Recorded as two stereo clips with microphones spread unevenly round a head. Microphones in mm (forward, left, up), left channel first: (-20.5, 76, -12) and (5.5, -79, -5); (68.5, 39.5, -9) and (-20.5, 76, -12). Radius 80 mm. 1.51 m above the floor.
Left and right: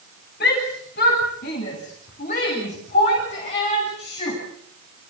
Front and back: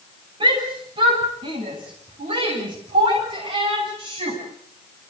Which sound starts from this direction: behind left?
A shout, at 0.4 s.